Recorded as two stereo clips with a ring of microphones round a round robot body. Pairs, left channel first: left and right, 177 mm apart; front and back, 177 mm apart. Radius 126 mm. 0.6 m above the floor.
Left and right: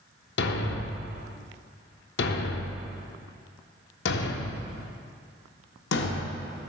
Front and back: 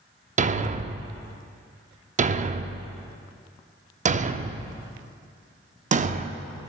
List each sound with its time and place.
0.4 s a thud: 125° left, 0.5 m